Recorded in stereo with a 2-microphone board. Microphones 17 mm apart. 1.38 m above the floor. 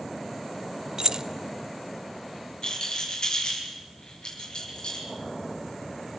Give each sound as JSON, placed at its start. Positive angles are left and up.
{"t": 1.0, "sound": "keys jangling", "side_deg": -45, "distance_m": 0.5}
{"t": 2.6, "sound": "a rattle", "side_deg": 50, "distance_m": 7.5}